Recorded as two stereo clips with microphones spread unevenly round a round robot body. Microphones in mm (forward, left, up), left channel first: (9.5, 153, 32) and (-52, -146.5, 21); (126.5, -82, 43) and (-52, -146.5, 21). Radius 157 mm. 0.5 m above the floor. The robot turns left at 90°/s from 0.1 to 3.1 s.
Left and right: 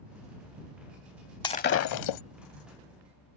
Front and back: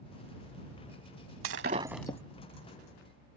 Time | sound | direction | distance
1.4 | breaking glass | 155° left | ?